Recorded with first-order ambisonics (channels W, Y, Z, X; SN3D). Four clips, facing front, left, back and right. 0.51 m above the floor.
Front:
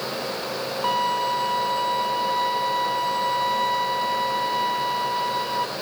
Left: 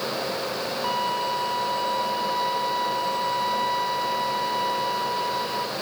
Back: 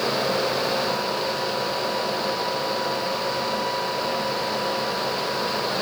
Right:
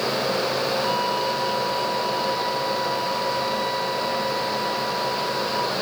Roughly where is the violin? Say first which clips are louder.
Right 2 dB, front 2 dB; ahead.